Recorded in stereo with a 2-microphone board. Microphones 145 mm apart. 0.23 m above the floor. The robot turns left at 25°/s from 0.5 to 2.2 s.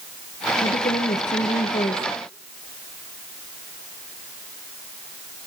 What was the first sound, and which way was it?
A woman speaking, 75° left.